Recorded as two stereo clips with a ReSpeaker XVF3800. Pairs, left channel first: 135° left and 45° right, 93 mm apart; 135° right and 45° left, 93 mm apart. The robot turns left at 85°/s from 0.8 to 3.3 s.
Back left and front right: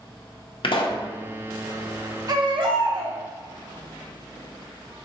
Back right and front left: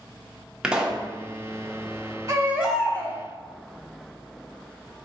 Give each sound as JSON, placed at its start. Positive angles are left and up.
{"t": 0.6, "sound": "a pop", "azimuth_deg": 125, "distance_m": 0.6}
{"t": 2.3, "sound": "a baby crying", "azimuth_deg": -5, "distance_m": 0.9}